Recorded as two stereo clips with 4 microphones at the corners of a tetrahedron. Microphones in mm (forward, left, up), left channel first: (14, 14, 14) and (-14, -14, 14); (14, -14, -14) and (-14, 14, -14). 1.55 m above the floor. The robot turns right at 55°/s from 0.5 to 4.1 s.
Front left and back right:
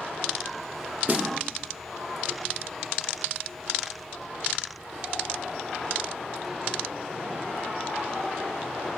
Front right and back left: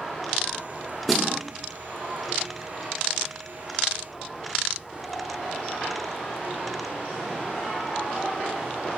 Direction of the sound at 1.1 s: 135° right.